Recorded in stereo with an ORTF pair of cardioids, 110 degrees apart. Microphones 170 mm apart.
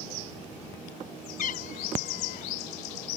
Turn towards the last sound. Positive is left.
turn(degrees=55)